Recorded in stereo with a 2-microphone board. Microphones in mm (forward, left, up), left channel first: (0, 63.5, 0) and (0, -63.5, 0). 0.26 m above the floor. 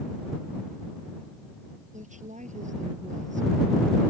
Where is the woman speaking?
75° right (ahead or behind).